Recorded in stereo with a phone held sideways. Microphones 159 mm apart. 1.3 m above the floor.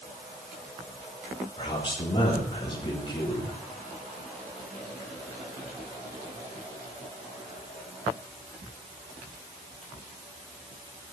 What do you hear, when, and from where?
1.6 s a man speaking: 30° left (ahead or behind), 3 m